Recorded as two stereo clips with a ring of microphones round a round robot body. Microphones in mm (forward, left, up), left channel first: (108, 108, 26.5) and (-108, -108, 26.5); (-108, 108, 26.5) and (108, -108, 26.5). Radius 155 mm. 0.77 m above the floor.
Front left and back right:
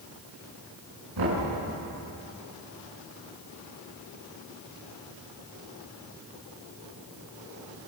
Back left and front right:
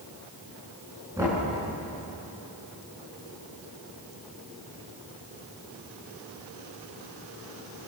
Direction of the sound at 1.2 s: 125° right.